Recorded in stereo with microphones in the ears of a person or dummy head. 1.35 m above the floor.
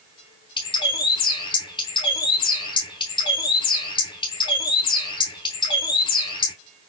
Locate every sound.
0.6 s a bird: 20° left (ahead or behind), 0.7 m